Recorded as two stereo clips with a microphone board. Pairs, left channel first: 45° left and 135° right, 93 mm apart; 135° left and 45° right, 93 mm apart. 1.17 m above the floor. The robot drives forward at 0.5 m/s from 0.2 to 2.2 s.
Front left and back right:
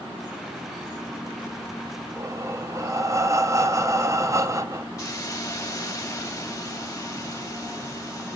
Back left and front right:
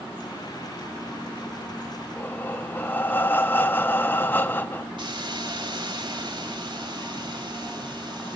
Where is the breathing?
170° right, 0.6 m.